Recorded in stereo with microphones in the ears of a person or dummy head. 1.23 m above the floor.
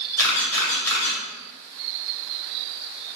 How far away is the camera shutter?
About 1.6 m.